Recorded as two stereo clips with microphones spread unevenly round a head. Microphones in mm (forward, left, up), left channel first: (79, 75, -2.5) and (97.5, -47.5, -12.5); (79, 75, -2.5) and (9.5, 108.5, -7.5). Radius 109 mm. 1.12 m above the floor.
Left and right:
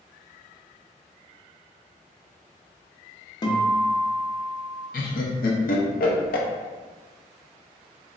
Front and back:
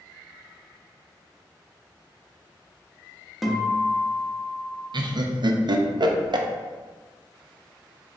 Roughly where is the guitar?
Left.